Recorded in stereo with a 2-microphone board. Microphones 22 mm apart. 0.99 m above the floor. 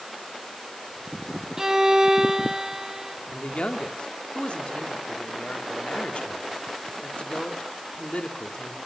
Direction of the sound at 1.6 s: 20° right (ahead or behind).